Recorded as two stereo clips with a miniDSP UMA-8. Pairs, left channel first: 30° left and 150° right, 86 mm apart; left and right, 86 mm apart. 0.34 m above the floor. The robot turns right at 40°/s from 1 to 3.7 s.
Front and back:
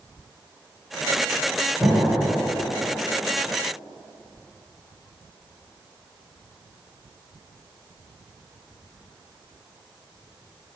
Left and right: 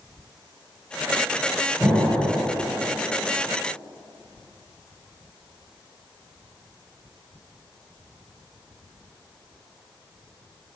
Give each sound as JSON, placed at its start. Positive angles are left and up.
{"t": 1.8, "sound": "an explosion", "azimuth_deg": 175, "distance_m": 1.6}